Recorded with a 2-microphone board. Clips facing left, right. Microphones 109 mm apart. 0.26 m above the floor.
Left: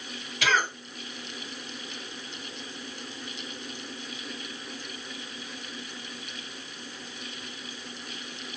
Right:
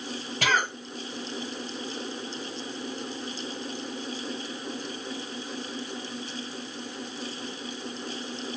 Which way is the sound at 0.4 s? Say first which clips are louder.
Even; 45° right (ahead or behind).